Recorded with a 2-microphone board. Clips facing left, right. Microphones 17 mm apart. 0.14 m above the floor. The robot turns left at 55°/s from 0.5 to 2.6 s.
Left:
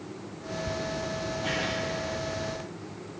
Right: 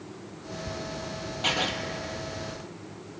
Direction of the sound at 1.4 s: 75° right (ahead or behind).